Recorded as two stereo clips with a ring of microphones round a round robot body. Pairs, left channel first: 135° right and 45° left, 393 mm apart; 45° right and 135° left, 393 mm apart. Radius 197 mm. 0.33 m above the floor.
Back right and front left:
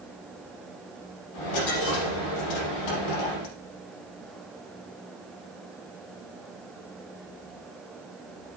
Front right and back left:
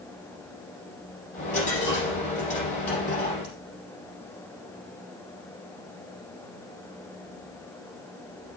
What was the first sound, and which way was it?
A dropped coin, 115° right.